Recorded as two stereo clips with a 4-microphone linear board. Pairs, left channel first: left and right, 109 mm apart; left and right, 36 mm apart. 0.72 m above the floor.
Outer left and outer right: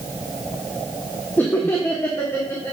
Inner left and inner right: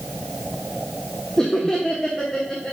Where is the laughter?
15° left (ahead or behind), 0.9 m; by 2.7 s 25° left (ahead or behind), 1.5 m.